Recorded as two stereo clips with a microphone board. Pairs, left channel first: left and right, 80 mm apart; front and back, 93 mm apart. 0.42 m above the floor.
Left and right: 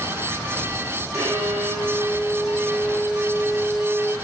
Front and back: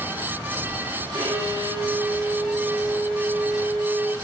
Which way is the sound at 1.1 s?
130° right.